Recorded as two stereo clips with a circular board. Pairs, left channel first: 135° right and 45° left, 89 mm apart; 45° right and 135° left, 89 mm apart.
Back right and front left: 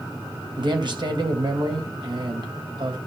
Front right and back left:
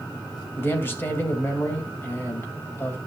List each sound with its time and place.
0.6 s a man speaking: 20° left, 2.5 m